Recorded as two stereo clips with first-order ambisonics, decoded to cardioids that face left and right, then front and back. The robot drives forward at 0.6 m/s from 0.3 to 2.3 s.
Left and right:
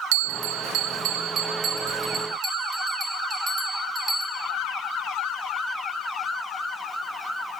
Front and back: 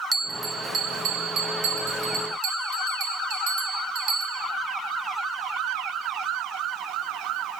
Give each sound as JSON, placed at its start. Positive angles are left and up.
{"t": 0.1, "sound": "a bell", "azimuth_deg": -100, "distance_m": 0.6}